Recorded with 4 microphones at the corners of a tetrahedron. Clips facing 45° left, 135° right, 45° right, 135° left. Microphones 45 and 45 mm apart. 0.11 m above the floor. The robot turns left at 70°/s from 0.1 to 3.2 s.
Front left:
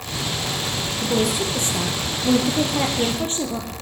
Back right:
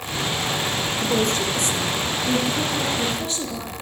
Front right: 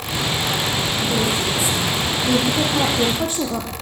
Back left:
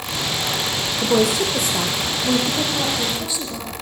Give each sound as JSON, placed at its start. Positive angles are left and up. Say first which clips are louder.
{"t": 1.0, "sound": "a woman speaking", "louder": "front left 1 dB, back left 6 dB", "azimuth_deg": 150, "distance_m": 4.0}